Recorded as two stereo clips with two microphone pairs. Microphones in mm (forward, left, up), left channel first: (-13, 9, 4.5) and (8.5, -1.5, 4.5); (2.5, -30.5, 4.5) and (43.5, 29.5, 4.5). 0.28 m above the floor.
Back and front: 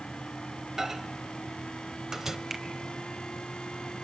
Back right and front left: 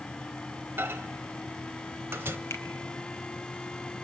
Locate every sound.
0.8 s a microwave: 30° left, 0.9 m
2.5 s a finger snap: 95° right, 1.7 m